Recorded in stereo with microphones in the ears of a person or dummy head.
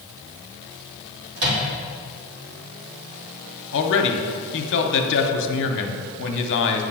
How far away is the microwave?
About 1.4 m.